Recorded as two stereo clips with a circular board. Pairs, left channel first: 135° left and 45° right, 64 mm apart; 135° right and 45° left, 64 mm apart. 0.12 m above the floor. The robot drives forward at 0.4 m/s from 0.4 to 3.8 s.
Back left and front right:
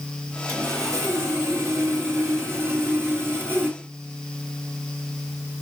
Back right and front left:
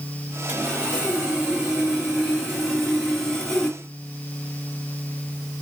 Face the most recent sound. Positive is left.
turn(degrees=-75)